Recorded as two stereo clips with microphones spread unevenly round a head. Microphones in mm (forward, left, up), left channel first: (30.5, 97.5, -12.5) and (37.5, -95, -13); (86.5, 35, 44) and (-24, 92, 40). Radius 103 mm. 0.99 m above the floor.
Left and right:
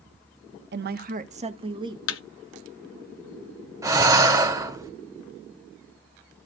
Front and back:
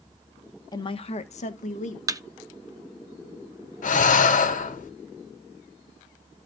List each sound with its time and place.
0.7 s a woman speaking: 80° right, 1.0 m; by 2.0 s 20° right, 1.7 m
2.1 s a thud: 90° left, 0.8 m
3.8 s breathing: 15° right, 1.6 m